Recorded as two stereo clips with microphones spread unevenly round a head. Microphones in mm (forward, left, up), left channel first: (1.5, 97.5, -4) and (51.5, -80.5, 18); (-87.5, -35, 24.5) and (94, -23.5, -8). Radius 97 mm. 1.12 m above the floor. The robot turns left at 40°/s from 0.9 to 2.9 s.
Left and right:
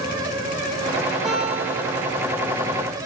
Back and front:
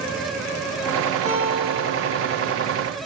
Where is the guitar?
15° left, 9.5 m; by 2.3 s 30° right, 9.5 m.